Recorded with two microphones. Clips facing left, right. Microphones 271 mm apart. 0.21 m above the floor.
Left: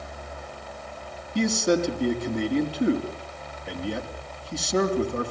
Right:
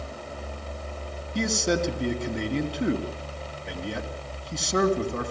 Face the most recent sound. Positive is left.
turn(degrees=0)  # may be behind; listen again after turning